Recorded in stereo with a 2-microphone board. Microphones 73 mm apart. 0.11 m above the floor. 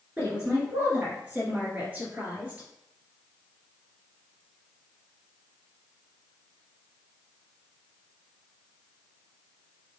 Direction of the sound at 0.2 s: 20° right (ahead or behind).